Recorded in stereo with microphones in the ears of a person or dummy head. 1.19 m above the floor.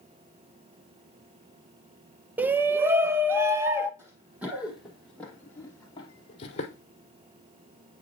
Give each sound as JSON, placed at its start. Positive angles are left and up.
{"t": 2.4, "sound": "a shout", "side_deg": -10, "distance_m": 0.6}
{"t": 4.0, "sound": "running footsteps", "side_deg": -15, "distance_m": 3.0}